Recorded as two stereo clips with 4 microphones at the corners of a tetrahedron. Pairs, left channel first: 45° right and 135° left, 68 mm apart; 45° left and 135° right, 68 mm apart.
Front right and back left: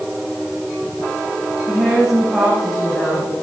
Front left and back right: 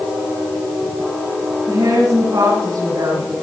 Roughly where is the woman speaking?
Behind right.